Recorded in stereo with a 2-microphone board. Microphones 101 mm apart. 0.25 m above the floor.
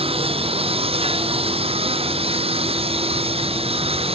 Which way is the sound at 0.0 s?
75° right (ahead or behind).